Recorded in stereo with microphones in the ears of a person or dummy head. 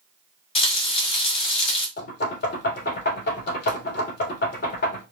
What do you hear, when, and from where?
0.6 s frying: 30° left (ahead or behind), 2 m
2.0 s knocking: 50° left (ahead or behind), 1.8 m